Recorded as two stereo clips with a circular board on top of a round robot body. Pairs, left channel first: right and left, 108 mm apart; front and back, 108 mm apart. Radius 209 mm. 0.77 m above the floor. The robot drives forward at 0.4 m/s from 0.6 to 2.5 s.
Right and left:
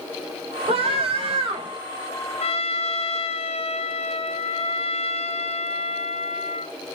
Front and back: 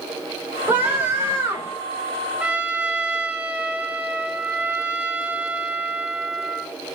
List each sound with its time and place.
0.7 s a scream: 105° left, 5 m; by 1.8 s 110° left, 5 m
2.4 s a trumpet: 100° right, 1.3 m; by 6.8 s 105° right, 1.3 m